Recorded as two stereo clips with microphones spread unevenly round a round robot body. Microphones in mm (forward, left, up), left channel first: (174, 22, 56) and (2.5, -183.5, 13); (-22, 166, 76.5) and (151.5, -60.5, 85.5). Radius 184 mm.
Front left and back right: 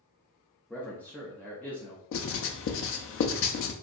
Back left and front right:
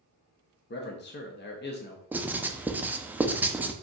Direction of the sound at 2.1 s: 30° left.